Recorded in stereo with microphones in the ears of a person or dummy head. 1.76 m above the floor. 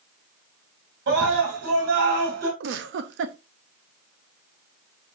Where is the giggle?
70° right (ahead or behind), 0.8 m.